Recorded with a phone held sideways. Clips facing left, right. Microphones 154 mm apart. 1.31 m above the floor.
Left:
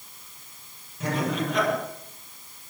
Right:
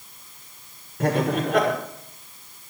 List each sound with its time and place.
1.0 s laughter: 70° right (ahead or behind), 5.5 m